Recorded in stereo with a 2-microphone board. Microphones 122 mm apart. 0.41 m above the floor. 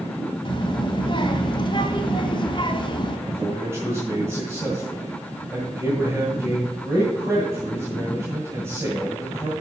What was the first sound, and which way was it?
A child speaking, 40° left (ahead or behind).